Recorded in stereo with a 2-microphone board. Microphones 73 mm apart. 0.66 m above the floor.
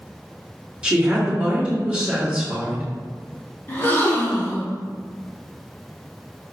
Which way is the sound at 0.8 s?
15° right (ahead or behind).